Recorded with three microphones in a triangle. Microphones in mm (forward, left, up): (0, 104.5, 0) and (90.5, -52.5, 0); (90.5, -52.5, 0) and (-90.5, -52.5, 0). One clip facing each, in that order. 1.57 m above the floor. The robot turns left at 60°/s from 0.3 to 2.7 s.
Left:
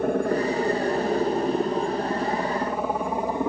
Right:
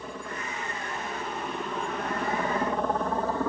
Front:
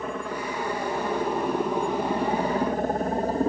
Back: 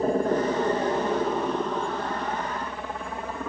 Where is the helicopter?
135° left; by 3.5 s 50° left.